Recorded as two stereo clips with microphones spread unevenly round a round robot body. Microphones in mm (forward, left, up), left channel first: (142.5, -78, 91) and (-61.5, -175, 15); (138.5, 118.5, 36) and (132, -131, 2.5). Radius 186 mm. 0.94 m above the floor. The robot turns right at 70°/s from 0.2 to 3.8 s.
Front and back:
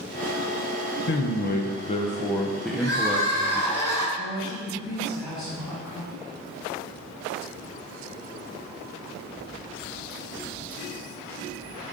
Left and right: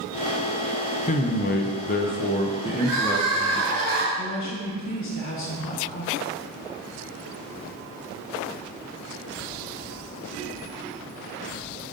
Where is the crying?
125° right, 3 m; by 4.1 s 55° right, 3 m.